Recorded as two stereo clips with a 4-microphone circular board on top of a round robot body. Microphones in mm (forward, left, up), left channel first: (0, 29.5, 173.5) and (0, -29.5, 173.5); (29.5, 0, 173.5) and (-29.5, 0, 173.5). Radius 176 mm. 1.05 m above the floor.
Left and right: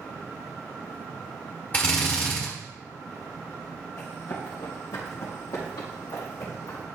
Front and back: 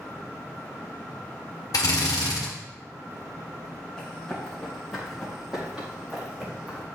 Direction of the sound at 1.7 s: 25° left.